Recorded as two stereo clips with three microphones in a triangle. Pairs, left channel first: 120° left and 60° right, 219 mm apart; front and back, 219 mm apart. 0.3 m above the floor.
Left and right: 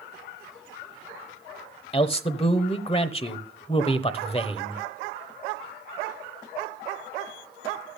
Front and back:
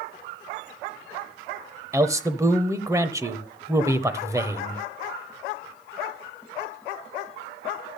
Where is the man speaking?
125° left, 0.9 m.